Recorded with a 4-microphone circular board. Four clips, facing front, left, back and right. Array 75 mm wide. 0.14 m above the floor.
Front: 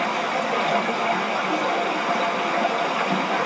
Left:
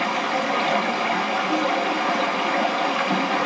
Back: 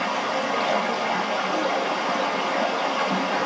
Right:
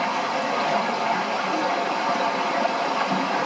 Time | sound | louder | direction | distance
0.0 | running water | left 1 dB, front 1 dB | 65° left | 1.7 m